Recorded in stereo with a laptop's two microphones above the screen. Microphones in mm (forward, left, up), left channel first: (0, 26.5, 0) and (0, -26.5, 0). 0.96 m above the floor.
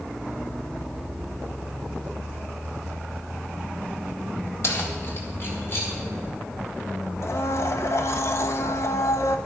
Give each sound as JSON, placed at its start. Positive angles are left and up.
{"t": 4.6, "sound": "keys jangling", "side_deg": 55, "distance_m": 1.1}
{"t": 7.2, "sound": "a blender", "side_deg": 55, "distance_m": 0.6}